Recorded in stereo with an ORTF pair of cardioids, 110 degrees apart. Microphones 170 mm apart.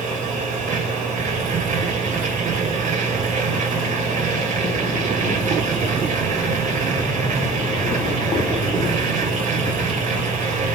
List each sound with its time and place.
0.0 s a machine running: 50° right, 2.5 m